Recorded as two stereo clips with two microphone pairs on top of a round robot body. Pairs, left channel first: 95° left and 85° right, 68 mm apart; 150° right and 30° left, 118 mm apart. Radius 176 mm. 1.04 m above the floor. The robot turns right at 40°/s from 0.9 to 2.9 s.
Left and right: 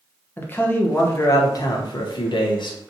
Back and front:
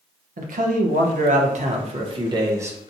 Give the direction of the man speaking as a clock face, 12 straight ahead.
11 o'clock.